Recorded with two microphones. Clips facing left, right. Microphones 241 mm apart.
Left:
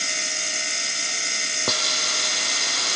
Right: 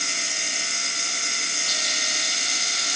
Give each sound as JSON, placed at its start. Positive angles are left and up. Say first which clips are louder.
{"t": 1.7, "sound": "a hiss", "louder": "left 10 dB", "side_deg": 75}